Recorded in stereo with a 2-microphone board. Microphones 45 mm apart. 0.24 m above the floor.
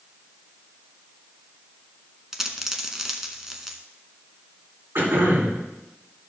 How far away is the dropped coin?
About 0.9 m.